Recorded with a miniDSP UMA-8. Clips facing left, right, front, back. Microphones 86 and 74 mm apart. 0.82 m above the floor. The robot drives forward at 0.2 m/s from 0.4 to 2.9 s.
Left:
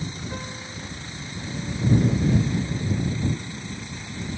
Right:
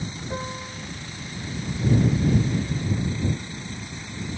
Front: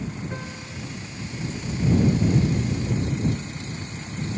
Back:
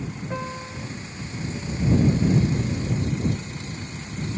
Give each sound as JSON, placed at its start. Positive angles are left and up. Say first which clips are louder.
{"t": 0.3, "sound": "a piano", "louder": "right 3 dB, back 4 dB", "azimuth_deg": -120, "distance_m": 1.2}